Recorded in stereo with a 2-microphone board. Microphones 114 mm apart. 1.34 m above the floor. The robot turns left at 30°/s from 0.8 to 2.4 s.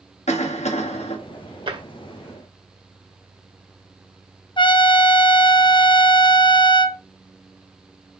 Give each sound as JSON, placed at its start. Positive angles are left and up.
{"t": 0.3, "sound": "a cough", "side_deg": 75, "distance_m": 1.9}
{"t": 1.7, "sound": "tapping", "side_deg": -50, "distance_m": 2.0}
{"t": 4.6, "sound": "a trumpet", "side_deg": 45, "distance_m": 0.7}